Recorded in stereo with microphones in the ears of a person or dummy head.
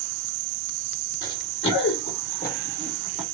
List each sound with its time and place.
1.2 s running footsteps: 45° left (ahead or behind), 1.6 m; by 3.2 s 5° right (ahead or behind), 1.2 m